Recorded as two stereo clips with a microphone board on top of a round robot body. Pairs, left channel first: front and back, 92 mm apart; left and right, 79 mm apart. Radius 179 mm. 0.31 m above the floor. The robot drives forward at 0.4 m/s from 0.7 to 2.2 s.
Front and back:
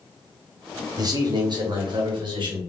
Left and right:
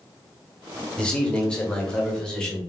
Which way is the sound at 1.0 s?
165° left.